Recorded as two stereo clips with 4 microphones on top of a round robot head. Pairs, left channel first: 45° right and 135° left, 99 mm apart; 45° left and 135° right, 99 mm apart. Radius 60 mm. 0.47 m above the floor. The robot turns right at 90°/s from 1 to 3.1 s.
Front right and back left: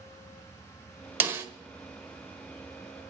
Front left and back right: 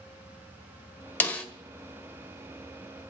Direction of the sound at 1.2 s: 90° left.